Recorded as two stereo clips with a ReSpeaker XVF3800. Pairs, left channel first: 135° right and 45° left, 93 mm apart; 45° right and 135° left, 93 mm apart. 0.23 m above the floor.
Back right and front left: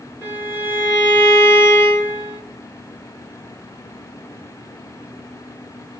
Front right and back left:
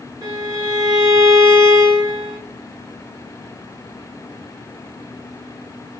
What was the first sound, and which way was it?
A violin, 170° left.